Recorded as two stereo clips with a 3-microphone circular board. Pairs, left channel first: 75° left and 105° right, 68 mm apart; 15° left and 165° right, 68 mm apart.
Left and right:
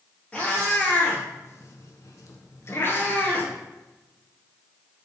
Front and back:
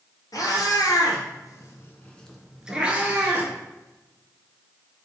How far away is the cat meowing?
About 1.3 m.